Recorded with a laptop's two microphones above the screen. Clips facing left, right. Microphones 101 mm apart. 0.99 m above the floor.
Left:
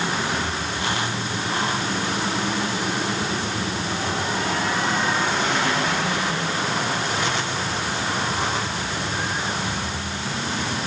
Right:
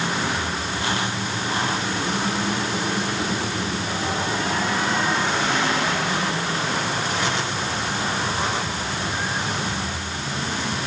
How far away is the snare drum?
No snare drum in this recording.